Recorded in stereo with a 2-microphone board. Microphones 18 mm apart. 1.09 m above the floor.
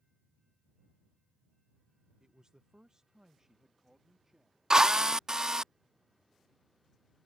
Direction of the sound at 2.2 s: 40° right (ahead or behind).